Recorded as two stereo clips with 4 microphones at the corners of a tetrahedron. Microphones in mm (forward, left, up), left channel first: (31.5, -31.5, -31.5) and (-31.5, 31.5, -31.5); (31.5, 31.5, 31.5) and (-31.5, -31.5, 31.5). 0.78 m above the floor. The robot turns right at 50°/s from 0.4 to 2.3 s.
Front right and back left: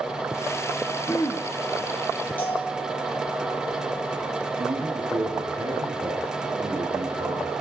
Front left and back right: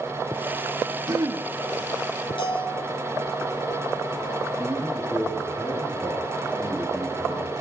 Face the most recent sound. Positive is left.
turn(degrees=130)